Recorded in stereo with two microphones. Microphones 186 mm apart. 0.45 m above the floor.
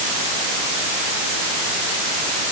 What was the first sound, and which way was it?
Only background noise.